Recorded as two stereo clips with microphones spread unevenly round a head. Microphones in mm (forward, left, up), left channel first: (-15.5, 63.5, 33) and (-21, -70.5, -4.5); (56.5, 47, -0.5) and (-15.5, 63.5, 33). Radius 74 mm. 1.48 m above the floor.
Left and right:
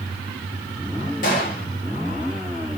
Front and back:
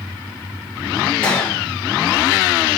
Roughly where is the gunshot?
Left.